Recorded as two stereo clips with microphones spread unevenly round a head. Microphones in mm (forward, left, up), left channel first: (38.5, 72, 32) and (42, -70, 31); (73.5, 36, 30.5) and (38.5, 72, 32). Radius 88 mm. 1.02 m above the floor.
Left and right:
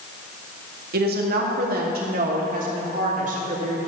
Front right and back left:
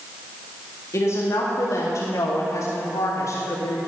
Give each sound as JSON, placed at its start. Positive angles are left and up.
{"t": 0.9, "sound": "a woman speaking", "azimuth_deg": -90, "distance_m": 1.9}